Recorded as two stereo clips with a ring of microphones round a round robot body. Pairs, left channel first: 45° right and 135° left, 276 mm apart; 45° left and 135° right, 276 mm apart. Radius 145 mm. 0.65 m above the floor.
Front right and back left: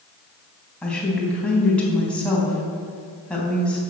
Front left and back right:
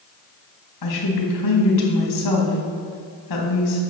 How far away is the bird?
No bird in this recording.